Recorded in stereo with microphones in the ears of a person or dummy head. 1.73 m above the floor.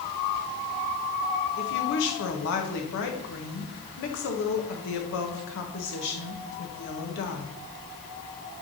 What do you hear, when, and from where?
1.6 s a woman speaking: 65° left (ahead or behind), 1.7 m